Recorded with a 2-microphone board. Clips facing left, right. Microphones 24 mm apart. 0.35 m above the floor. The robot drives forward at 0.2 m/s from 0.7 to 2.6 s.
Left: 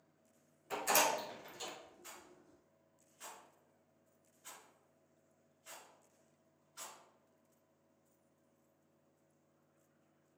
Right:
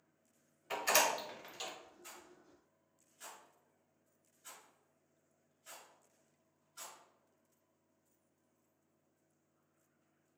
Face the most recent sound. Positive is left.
turn(degrees=20)  # may be behind; listen again after turning